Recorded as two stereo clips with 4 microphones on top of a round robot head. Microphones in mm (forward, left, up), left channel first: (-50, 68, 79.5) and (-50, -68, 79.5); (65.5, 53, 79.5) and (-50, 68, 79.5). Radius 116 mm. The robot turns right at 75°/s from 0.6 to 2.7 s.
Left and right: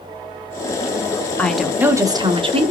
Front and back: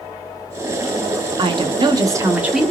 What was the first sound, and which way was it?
A woman speaking, 165° left.